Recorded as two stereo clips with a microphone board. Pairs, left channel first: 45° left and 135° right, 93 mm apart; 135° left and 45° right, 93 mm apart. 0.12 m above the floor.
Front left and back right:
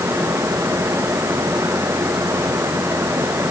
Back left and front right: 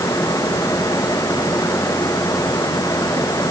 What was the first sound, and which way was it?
Only background noise.